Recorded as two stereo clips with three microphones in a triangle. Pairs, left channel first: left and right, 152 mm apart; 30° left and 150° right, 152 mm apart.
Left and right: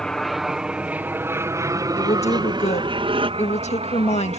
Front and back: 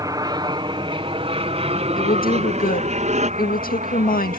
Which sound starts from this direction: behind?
An aircraft, at 0.0 s.